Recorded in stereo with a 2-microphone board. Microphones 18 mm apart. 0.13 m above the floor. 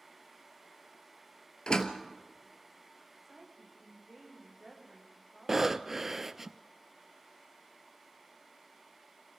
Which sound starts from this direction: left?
A door slam, at 1.7 s.